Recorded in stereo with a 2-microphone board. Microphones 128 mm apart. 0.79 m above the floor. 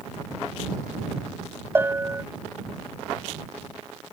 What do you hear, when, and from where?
1.8 s a bell: 15° right (ahead or behind)